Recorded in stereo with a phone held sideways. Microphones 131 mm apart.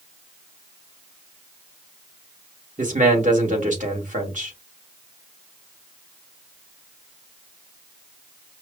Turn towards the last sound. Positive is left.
turn(degrees=-80)